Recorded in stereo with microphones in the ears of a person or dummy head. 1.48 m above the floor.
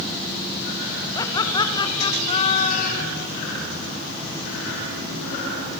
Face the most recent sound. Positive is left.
turn(degrees=55)  # may be behind; listen again after turning